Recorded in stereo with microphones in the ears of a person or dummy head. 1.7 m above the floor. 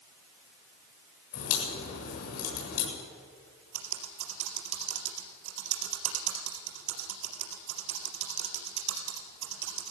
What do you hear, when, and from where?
1.3 s a crack: 85° left, 8 m
3.7 s typing on a keyboard: 70° right (ahead or behind), 3.5 m